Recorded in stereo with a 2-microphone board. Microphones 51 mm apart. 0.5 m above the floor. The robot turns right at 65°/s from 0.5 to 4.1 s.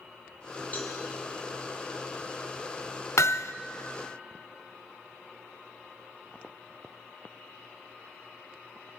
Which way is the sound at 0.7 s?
35° left (ahead or behind).